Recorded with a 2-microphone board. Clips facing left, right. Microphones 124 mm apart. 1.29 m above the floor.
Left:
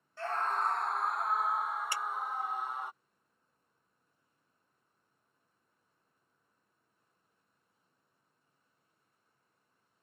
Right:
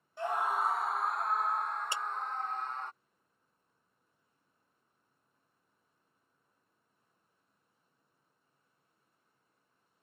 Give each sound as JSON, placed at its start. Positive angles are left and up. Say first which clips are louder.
{"t": 0.2, "sound": "a scream", "louder": "right 1 dB", "side_deg": -15}
{"t": 1.9, "sound": "a clap", "louder": "even", "side_deg": -20}